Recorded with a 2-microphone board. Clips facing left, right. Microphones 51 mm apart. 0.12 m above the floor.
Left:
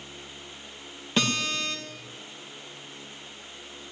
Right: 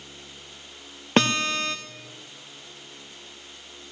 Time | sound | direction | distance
1.2 | a guitar | 55° right (ahead or behind) | 2.5 m